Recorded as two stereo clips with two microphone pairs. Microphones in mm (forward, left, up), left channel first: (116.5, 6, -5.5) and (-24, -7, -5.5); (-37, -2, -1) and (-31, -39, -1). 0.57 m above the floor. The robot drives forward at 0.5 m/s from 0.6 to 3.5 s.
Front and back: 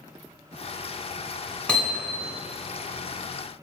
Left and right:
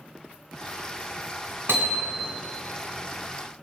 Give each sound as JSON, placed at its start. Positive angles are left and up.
{"t": 1.7, "sound": "hammering", "azimuth_deg": -75, "distance_m": 3.5}